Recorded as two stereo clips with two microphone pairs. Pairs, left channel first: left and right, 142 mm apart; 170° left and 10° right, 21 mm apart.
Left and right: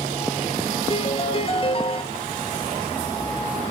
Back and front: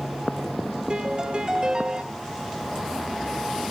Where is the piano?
40° left, 0.7 m.